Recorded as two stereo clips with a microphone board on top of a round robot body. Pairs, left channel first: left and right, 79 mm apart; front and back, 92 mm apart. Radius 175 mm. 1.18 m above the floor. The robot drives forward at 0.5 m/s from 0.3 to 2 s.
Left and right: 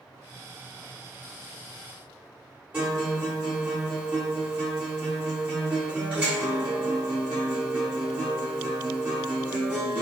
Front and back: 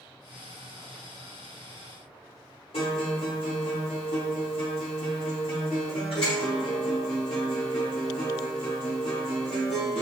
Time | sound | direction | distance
2.7 | a guitar | 20° right | 0.7 m